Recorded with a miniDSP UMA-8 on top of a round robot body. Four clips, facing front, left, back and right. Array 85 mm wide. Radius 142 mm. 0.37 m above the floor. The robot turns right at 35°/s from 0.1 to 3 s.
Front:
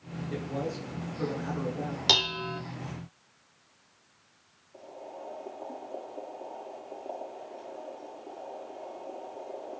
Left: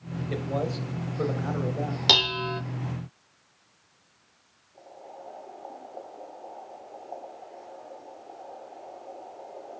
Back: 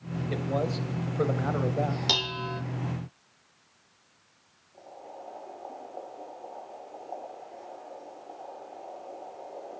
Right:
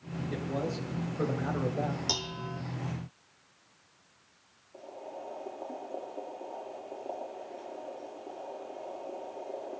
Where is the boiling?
60° right, 7 m.